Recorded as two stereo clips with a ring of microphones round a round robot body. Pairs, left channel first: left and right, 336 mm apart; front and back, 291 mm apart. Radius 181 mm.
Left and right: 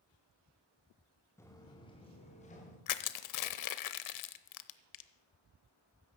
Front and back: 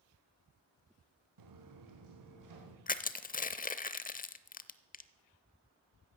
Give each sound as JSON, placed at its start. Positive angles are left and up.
{"t": 1.4, "sound": "footsteps", "azimuth_deg": 175, "distance_m": 3.0}
{"t": 2.9, "sound": "crushing", "azimuth_deg": 60, "distance_m": 0.8}